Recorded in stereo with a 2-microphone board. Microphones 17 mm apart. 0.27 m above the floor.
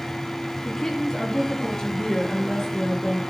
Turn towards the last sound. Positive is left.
turn(degrees=50)  # may be behind; listen again after turning